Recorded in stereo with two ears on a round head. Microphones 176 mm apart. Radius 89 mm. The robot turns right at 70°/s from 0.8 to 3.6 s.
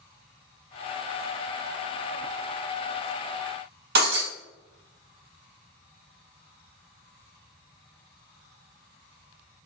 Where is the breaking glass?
50° right (ahead or behind), 3.5 m.